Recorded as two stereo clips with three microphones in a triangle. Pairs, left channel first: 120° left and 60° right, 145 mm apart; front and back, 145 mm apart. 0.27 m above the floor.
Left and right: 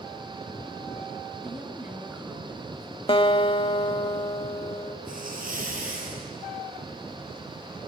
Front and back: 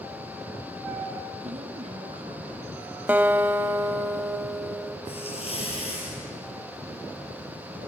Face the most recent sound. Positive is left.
turn(degrees=-50)